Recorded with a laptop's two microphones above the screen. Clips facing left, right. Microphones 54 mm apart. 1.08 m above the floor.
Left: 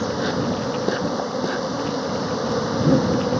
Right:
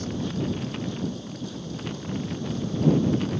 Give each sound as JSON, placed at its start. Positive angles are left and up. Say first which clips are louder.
{"t": 0.0, "sound": "an insect", "louder": "left 7 dB", "side_deg": 70}